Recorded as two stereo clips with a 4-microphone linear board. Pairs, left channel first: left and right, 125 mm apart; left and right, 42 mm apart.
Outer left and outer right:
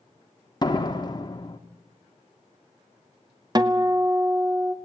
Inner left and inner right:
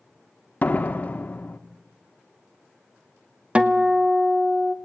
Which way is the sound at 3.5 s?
30° right (ahead or behind).